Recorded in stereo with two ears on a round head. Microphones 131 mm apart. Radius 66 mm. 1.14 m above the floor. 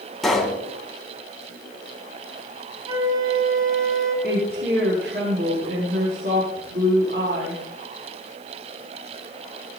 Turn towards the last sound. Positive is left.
turn(degrees=-65)  # may be behind; listen again after turning